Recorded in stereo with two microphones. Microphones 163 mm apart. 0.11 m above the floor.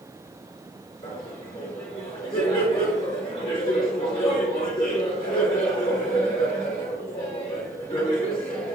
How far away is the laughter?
About 1.3 m.